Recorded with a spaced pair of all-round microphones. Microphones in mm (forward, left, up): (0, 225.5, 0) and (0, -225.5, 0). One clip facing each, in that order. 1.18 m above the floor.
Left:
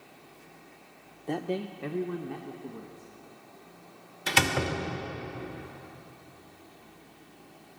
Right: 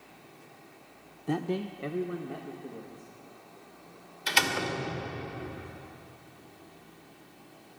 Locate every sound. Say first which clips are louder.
1.3 s a man speaking: right 1 dB; 30° right (ahead or behind), 0.6 m; by 3.1 s 20° left (ahead or behind), 2 m
4.3 s a door slam: left 3 dB; 65° left (ahead or behind), 2.5 m